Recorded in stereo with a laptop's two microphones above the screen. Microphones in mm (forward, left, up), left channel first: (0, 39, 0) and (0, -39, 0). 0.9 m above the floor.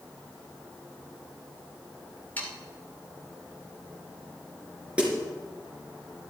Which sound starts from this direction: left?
Sawing, at 2.4 s.